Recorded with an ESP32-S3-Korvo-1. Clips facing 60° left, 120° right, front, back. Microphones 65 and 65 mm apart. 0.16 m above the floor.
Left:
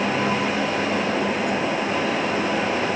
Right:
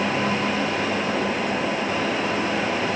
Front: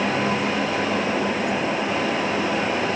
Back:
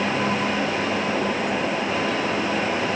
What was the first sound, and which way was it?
Only background noise.